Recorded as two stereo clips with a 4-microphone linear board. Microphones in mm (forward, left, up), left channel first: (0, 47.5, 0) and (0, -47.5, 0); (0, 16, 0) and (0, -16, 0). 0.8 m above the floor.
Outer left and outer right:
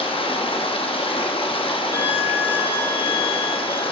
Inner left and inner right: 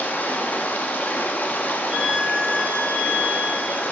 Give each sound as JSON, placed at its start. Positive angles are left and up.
{"t": 0.0, "sound": "running water", "side_deg": 65, "distance_m": 0.8}
{"t": 1.9, "sound": "a violin", "side_deg": 30, "distance_m": 3.5}